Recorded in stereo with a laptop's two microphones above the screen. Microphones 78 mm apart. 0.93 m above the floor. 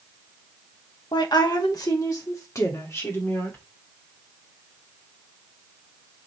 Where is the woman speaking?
65° left (ahead or behind), 1.3 m; by 3.6 s 30° left (ahead or behind), 2.5 m.